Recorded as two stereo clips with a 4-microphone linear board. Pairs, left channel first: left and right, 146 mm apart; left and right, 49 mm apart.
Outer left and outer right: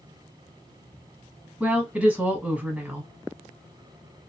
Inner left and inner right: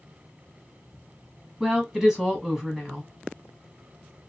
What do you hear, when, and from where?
1.6 s a woman speaking: 5° right (ahead or behind), 1.0 m